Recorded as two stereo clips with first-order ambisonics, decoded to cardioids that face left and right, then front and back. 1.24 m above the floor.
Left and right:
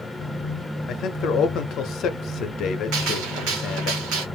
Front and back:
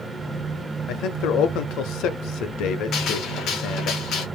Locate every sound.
0.9 s a man speaking: 40° left, 0.6 m
2.9 s a gunshot: 55° right, 1.1 m